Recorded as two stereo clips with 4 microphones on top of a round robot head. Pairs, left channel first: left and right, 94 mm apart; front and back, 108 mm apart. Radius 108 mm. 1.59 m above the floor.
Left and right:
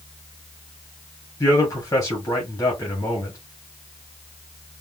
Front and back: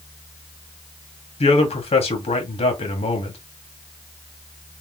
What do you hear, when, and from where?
1.4 s a man speaking: 25° left, 1.4 m